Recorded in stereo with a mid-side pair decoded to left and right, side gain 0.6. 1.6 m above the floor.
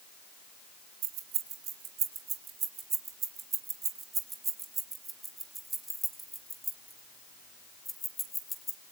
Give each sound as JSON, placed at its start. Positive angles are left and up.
{"t": 1.0, "sound": "keys jangling", "azimuth_deg": -60, "distance_m": 3.0}